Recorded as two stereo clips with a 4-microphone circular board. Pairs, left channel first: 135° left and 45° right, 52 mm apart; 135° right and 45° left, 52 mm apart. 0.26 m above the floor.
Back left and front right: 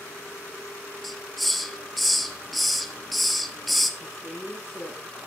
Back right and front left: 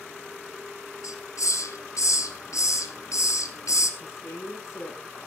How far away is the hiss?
About 1.5 m.